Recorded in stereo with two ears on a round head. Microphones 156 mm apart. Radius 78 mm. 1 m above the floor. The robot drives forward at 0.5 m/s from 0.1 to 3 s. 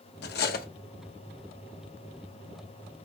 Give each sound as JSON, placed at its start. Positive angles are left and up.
{"t": 0.2, "sound": "cutlery clinking", "side_deg": 65, "distance_m": 1.1}